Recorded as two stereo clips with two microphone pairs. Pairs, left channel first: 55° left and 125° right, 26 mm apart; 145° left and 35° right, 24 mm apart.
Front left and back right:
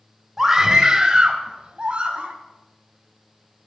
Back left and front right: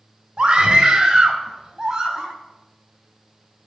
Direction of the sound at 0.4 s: 55° right.